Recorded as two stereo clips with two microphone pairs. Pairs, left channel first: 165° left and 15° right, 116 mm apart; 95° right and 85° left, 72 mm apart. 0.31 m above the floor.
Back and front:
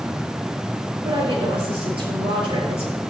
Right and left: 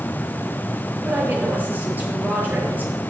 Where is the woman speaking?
20° left, 7 m.